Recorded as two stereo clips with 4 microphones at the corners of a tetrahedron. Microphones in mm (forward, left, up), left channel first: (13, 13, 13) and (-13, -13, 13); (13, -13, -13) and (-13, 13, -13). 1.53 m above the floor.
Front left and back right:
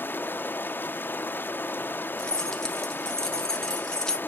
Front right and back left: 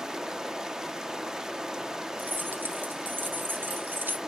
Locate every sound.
0.0 s running water: 60° left, 0.8 m
2.2 s keys jangling: 120° left, 1.5 m